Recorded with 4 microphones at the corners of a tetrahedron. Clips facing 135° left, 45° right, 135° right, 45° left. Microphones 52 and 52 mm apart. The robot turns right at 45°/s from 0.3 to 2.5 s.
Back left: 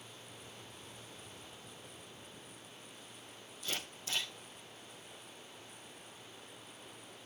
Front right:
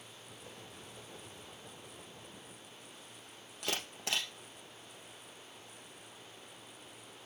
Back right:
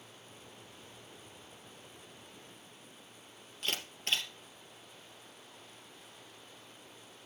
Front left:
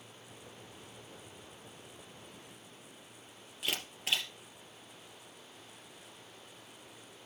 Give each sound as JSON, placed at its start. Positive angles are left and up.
{"t": 3.6, "sound": "a camera shutter", "azimuth_deg": -40, "distance_m": 2.5}